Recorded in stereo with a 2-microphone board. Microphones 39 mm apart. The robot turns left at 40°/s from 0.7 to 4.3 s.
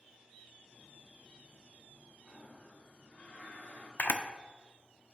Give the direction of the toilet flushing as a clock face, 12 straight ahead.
6 o'clock.